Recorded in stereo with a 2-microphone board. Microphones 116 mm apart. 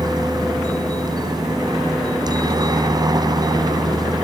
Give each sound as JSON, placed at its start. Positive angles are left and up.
{"t": 0.0, "sound": "a helicopter", "side_deg": -35}